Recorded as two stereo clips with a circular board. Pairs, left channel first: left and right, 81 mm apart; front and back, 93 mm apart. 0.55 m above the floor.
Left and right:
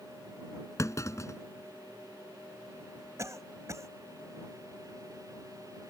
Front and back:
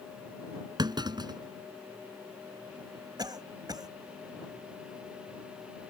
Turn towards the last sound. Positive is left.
turn(degrees=-140)